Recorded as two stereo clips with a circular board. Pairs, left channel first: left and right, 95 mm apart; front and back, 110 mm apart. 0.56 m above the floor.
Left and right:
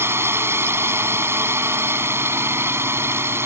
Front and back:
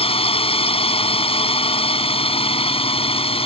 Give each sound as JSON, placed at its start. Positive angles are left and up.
{"t": 0.0, "sound": "a drone", "azimuth_deg": -25}